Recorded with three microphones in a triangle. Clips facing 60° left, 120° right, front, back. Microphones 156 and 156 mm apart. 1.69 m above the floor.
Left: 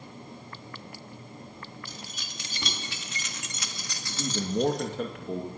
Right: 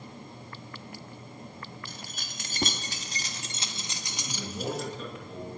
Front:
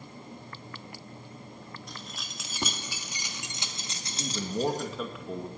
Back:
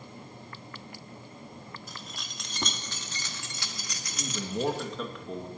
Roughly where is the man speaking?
Left.